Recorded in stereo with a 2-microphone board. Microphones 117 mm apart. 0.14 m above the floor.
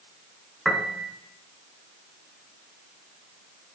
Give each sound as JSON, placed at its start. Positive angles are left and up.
{"t": 0.7, "sound": "a piano", "side_deg": 0, "distance_m": 0.9}